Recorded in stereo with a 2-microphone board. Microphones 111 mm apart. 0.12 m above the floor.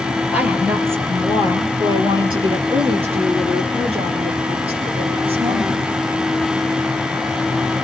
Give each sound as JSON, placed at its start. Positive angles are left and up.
{"t": 0.3, "sound": "a woman speaking", "side_deg": -10, "distance_m": 3.0}